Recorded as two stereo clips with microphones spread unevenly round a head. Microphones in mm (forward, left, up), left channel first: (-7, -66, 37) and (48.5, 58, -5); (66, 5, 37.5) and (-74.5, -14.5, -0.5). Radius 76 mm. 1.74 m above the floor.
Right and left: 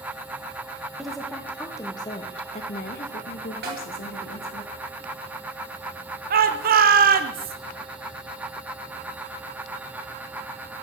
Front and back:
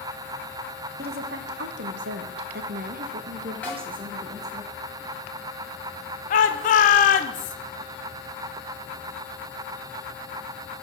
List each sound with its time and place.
1.0 s a woman speaking: 160° left, 1.1 m; by 4.6 s 100° right, 1.5 m
3.6 s a snare drum: 70° left, 2 m
6.3 s a shout: 45° left, 0.9 m